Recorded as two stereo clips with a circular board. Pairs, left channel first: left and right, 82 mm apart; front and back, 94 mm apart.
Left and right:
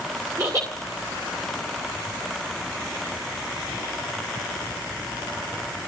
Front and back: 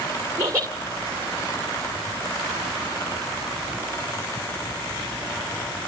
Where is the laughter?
120° right, 2.0 m.